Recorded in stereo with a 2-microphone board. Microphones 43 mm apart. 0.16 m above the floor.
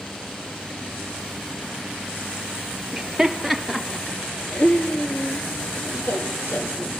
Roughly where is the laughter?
Centre.